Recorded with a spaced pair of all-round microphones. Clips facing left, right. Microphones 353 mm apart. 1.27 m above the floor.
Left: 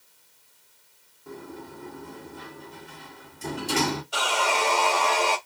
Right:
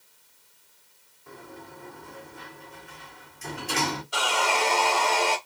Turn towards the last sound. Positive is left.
turn(degrees=-5)  # may be behind; listen again after turning